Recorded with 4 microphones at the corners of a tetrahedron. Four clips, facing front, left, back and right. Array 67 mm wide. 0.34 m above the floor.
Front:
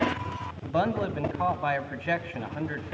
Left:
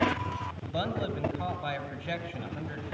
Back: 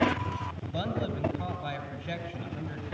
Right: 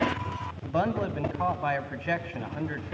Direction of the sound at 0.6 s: 35° right.